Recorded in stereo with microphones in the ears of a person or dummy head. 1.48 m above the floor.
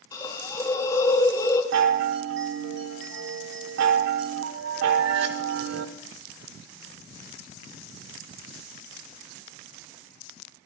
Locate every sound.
0.1 s a hiss: 20° left (ahead or behind), 1.9 m
1.7 s a chime: 70° right (ahead or behind), 1.0 m